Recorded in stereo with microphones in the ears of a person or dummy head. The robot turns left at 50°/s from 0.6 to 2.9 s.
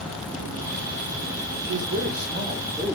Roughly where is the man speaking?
Right.